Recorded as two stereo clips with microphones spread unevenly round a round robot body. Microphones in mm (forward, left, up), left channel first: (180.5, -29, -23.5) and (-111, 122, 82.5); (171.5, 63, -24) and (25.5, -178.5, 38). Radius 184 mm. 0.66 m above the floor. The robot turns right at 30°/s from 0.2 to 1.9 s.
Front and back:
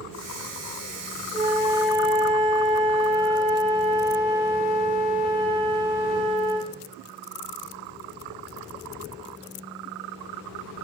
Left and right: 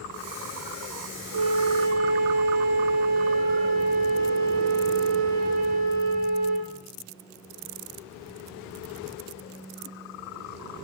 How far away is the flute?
About 9 m.